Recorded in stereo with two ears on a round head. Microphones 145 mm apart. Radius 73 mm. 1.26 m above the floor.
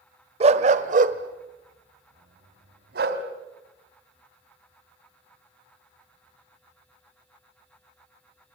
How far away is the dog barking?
About 1.3 m.